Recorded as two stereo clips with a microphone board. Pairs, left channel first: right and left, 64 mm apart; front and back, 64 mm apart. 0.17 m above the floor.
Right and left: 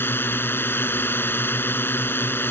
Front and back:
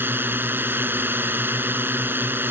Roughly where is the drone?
Behind right.